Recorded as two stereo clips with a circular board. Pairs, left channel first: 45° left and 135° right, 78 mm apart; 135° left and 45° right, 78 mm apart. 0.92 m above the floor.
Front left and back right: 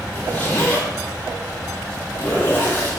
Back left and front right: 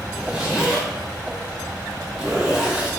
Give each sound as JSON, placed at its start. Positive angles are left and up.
{"t": 0.1, "sound": "a zipper", "azimuth_deg": 20, "distance_m": 0.9}